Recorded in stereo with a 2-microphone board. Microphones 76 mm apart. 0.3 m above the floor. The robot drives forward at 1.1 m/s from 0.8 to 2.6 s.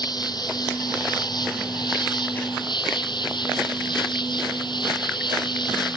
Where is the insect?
60° left (ahead or behind); by 6.0 s 70° left (ahead or behind).